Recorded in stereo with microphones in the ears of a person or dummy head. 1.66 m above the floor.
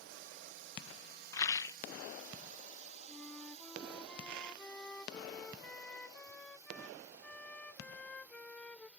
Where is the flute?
5° left (ahead or behind).